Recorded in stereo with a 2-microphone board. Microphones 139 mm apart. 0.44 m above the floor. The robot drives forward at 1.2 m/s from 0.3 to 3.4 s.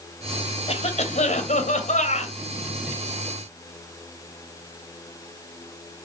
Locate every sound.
0.7 s a cough: 50° left (ahead or behind), 2.5 m; by 2.4 s 55° left (ahead or behind), 2 m